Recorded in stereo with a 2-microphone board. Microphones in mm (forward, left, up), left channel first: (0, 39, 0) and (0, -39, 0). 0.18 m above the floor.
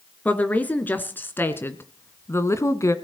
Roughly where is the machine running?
No machine running in this recording.